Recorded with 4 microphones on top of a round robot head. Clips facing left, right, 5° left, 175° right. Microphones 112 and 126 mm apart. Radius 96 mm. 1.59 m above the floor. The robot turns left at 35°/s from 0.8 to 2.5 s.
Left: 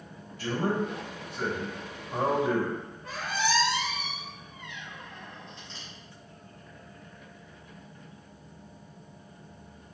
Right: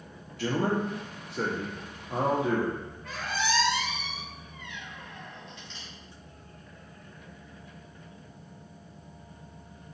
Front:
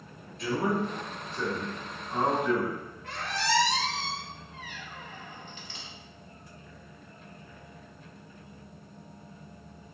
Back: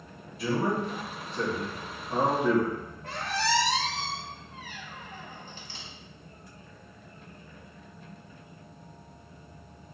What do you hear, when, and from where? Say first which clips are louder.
0.4 s a man speaking: right 1 dB, back 1 dB; 90° right, 0.7 m; by 2.8 s 150° right, 0.7 m
3.0 s a squeak: left 1 dB, back 2 dB; 155° left, 0.6 m